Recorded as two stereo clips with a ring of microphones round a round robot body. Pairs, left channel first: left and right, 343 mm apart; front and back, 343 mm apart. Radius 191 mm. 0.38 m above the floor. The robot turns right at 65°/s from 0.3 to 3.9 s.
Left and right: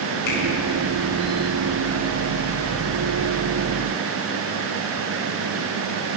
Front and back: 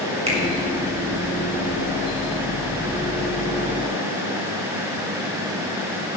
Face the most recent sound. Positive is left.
turn(degrees=-15)